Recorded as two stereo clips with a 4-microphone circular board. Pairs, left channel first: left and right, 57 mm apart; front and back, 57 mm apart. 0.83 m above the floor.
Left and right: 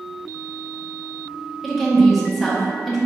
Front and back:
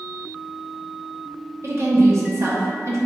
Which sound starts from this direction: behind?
A woman speaking, at 1.6 s.